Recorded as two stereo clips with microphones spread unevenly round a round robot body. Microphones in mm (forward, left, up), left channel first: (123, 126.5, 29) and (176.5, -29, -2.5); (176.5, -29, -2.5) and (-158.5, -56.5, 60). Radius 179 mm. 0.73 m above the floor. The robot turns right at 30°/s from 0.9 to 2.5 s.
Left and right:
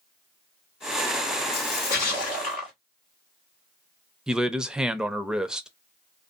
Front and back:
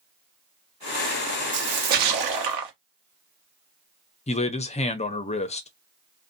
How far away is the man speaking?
About 0.6 m.